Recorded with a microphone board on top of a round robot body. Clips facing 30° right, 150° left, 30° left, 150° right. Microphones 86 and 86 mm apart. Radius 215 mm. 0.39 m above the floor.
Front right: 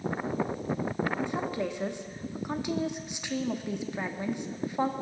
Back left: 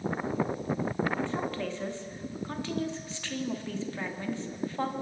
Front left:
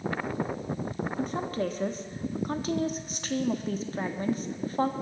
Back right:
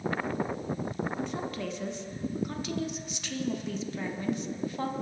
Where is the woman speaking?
35° left, 1.4 m.